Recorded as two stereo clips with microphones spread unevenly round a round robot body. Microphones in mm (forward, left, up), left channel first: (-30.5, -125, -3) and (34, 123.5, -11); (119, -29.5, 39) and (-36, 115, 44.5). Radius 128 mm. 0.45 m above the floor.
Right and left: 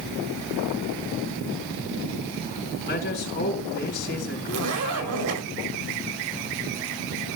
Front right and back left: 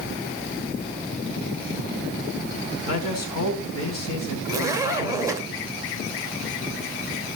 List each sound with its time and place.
2.9 s a man speaking: 50° right, 4.5 m
4.5 s a zipper: 65° left, 2 m